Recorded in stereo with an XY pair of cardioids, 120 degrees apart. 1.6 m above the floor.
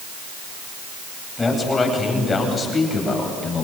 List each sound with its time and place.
1.4 s a man speaking: 20° left, 9.5 m; by 3.6 s 30° left, 9.5 m